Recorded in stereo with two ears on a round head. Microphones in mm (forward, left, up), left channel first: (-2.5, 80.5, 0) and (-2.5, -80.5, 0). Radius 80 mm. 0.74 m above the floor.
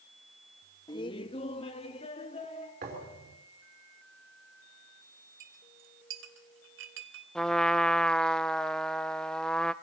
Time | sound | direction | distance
0.9 | laughter | 25° left (ahead or behind) | 0.7 m
2.8 | a thud | 55° right (ahead or behind) | 5.5 m
5.4 | a clink | 75° right (ahead or behind) | 3 m
7.3 | a trumpet | 5° left (ahead or behind) | 0.7 m